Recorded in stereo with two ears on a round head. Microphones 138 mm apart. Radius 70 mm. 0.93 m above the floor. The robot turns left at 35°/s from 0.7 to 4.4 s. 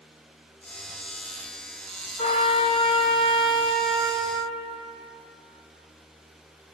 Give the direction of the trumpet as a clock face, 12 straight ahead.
11 o'clock.